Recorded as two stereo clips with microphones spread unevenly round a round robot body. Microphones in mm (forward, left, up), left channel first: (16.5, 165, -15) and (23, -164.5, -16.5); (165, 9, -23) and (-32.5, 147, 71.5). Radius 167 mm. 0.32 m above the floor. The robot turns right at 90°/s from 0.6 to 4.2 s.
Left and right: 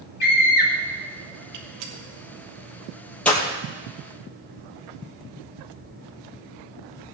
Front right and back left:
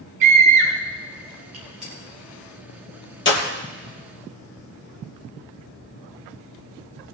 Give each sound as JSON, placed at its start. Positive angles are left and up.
{"t": 0.2, "sound": "a scream", "azimuth_deg": 150, "distance_m": 2.5}
{"t": 1.5, "sound": "a gunshot", "azimuth_deg": -150, "distance_m": 2.5}